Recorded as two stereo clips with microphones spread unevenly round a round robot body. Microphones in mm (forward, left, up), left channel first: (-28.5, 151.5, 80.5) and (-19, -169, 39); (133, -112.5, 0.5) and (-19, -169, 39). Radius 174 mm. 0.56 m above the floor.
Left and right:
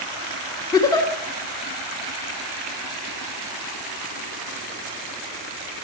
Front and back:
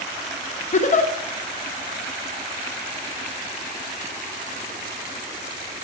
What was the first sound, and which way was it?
A giggle, 10° left.